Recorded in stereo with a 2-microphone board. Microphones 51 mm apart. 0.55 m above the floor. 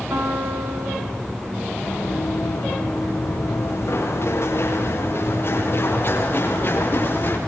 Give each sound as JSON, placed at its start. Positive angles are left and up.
{"t": 0.1, "sound": "a piano", "side_deg": -70, "distance_m": 4.0}
{"t": 1.8, "sound": "running footsteps", "side_deg": 70, "distance_m": 8.0}